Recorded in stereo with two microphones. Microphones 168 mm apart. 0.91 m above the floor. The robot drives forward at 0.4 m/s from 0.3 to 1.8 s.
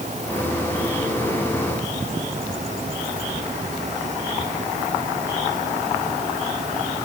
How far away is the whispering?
I don't hear whispering.